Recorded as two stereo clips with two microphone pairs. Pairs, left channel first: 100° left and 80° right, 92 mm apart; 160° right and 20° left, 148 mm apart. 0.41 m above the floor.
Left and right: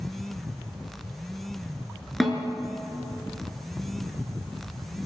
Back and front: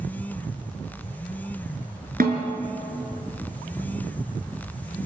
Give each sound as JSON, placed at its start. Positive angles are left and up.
{"t": 2.2, "sound": "a snare drum", "azimuth_deg": 10, "distance_m": 5.0}